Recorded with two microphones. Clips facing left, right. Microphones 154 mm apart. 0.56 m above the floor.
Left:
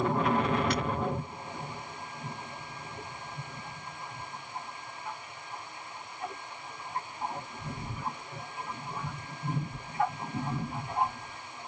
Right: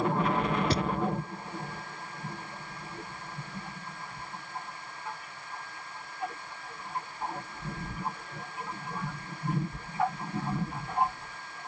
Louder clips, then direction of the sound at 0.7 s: Right 2 dB; 30° right (ahead or behind).